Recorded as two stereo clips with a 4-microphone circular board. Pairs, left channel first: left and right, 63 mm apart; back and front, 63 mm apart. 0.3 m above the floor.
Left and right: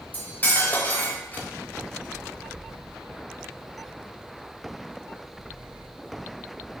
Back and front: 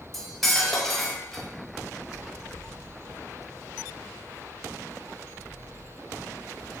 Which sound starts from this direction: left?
Cutlery clinking, at 0.1 s.